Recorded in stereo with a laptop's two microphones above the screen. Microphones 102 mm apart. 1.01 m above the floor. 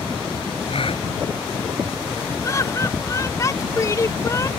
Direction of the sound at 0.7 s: 65° left (ahead or behind).